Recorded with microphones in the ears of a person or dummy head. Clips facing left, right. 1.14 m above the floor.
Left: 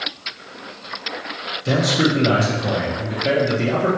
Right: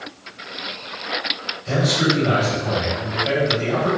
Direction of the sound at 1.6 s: 55° left (ahead or behind).